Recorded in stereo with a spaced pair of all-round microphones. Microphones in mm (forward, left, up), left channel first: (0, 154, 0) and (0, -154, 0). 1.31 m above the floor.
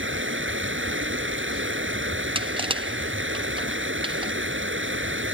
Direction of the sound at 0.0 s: 40° right (ahead or behind).